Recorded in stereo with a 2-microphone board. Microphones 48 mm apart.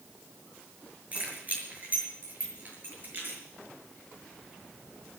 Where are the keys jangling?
30° right (ahead or behind), 6 m; by 3.4 s 45° right (ahead or behind), 7 m.